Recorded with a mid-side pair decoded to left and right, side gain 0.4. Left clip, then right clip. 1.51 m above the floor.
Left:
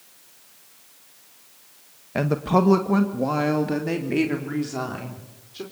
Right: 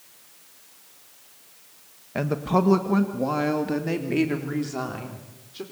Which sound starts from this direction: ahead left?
A woman speaking, at 2.1 s.